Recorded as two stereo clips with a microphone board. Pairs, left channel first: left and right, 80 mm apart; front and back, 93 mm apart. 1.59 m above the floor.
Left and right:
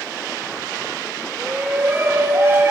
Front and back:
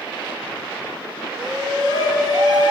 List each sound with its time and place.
1.4 s a shout: 155° right, 5 m; by 2.7 s 145° right, 5 m